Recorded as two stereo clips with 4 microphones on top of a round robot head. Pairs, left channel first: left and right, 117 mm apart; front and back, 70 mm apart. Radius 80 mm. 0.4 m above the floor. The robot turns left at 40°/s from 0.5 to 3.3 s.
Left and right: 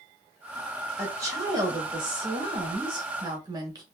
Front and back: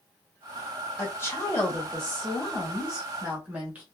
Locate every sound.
1.0 s a woman speaking: 35° right, 1.2 m; by 3.8 s 125° right, 1.2 m